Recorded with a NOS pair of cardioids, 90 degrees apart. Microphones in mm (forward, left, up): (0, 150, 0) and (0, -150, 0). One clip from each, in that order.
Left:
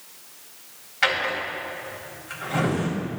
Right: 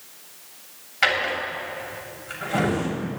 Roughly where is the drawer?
Ahead.